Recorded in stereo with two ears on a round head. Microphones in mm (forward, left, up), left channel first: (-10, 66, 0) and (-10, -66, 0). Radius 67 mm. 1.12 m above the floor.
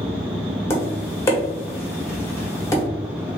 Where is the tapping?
20° left (ahead or behind), 1.1 m.